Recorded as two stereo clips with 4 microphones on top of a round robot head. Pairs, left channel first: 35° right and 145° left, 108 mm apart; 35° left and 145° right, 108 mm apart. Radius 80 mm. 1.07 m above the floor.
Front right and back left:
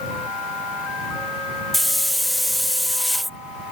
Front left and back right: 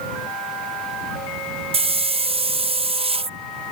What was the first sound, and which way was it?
A hiss, 125° right.